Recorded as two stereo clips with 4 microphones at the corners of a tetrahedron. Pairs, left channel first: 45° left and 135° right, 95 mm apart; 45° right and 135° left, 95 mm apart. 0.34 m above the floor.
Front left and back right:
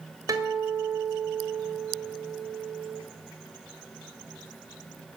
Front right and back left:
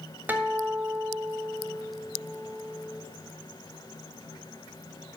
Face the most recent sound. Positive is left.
turn(degrees=-165)